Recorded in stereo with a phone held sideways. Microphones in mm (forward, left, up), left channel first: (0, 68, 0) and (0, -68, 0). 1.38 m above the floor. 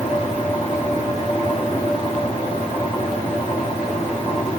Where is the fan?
70° left (ahead or behind), 1.6 m.